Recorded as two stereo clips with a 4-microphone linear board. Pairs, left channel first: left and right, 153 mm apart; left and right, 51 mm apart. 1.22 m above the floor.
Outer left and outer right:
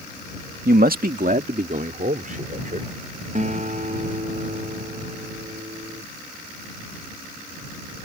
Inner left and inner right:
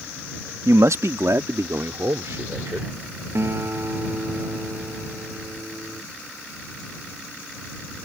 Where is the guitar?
50° right (ahead or behind).